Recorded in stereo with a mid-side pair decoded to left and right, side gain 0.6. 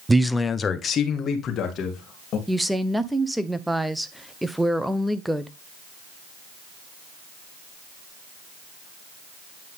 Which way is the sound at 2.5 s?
5° right.